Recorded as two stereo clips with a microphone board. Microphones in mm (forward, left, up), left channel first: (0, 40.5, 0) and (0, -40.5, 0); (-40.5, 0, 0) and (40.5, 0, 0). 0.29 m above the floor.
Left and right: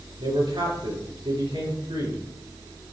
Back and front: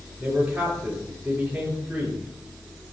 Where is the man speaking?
80° right, 5.5 m.